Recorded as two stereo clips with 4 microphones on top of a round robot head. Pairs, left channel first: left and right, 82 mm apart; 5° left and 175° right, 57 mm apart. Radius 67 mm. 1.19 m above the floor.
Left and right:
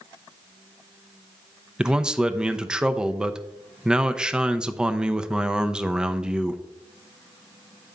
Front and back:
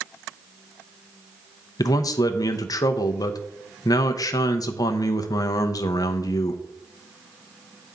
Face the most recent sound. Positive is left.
turn(degrees=-10)